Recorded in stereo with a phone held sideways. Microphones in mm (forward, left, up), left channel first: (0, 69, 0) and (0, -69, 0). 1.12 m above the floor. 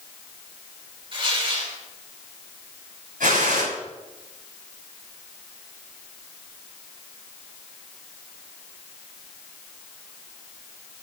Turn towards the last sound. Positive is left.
turn(degrees=-85)